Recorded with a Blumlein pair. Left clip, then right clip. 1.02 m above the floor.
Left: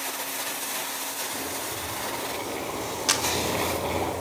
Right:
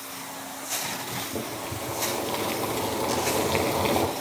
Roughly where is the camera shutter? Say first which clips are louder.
Left 6 dB; ahead left.